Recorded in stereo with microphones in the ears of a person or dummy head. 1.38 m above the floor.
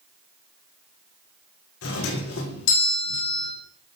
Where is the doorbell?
70° left (ahead or behind), 1.8 m.